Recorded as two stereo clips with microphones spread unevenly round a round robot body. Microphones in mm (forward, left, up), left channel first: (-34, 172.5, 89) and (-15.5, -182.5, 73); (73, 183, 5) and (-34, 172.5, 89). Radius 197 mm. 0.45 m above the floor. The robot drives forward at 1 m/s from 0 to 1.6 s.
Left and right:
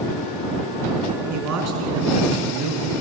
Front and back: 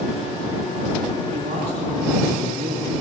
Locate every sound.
1.3 s a man speaking: 130° right, 5 m